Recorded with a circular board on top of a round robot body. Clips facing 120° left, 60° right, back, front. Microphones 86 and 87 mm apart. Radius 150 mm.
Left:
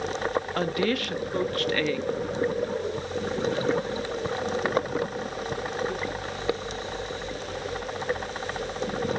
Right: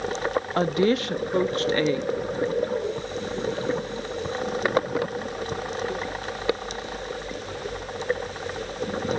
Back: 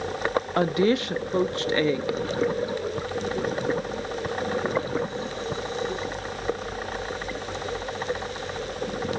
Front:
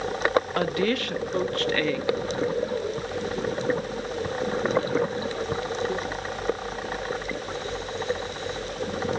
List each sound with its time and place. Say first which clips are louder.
0.6 s a woman speaking: right 7 dB, back 3 dB; 115° right, 0.8 m